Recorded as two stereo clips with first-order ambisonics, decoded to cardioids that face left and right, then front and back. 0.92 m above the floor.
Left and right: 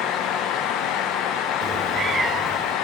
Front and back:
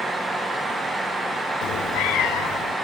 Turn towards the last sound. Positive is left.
turn(degrees=-20)